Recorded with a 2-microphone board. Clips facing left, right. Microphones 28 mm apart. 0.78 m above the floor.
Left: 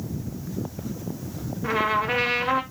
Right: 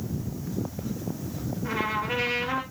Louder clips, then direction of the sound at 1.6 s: Left 6 dB; 70° left (ahead or behind).